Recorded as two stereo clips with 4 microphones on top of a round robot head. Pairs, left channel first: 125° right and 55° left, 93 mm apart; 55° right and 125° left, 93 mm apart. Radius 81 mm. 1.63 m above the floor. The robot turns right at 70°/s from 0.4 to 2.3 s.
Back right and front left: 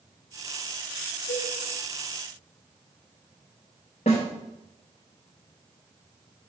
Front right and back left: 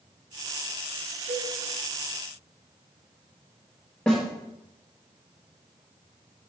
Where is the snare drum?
135° right, 1.1 m.